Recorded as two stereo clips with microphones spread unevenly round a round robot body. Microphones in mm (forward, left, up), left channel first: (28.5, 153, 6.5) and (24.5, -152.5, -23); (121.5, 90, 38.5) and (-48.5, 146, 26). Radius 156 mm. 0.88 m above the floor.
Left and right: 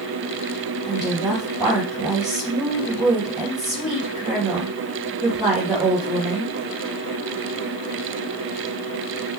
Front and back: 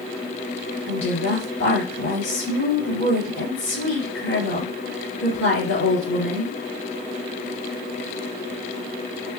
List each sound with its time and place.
0.9 s a woman speaking: 5° right, 3 m